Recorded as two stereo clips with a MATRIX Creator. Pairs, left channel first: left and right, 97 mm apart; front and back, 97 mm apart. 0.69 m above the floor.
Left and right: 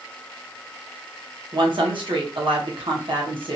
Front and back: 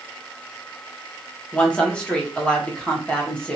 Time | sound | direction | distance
1.5 | a woman speaking | 75° right | 1.0 m